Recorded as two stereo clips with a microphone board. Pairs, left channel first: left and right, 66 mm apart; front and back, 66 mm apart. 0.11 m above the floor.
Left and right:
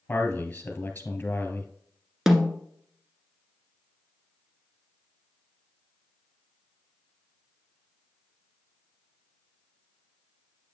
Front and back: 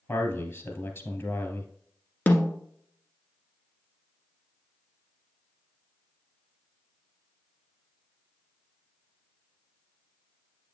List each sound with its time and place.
0.1 s a man speaking: 35° left, 1.7 m
2.3 s a snare drum: 10° right, 1.3 m